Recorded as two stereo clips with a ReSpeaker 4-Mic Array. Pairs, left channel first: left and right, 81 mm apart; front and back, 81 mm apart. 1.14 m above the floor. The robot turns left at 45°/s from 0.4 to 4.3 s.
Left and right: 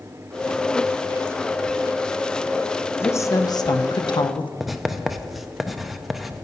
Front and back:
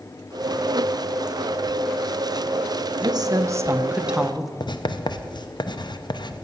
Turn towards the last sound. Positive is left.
turn(degrees=0)